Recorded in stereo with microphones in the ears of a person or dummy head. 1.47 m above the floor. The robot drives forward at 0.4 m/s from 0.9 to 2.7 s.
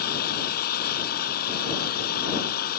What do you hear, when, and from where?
0.0 s an engine running: 55° left (ahead or behind); by 2.8 s 50° left (ahead or behind)